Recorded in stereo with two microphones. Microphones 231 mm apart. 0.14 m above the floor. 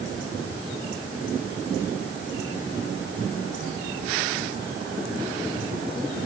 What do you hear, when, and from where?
Only background noise.